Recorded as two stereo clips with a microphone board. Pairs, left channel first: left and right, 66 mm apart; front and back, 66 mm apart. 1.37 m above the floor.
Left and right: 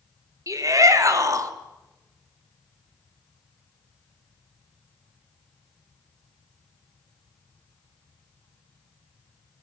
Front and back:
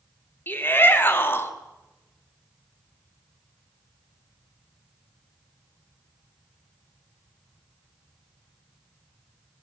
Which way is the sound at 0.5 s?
60° right.